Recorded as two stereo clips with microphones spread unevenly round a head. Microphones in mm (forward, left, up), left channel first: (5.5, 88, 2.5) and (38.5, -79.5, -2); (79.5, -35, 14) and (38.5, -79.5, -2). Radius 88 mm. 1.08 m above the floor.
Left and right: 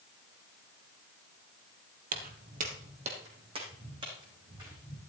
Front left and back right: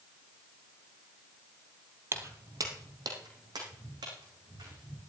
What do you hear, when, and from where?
2.1 s footsteps: 85° right, 1.5 m; by 5.0 s 150° right, 5 m